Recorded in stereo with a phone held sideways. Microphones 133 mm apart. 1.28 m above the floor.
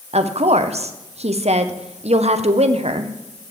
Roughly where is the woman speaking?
Right.